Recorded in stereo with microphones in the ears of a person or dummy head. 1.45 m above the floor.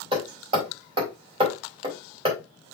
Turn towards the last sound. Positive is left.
turn(degrees=-25)  # may be behind; listen again after turning